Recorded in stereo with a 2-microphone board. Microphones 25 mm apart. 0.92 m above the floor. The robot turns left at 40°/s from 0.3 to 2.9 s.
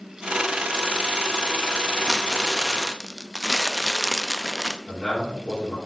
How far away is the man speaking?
About 3.5 m.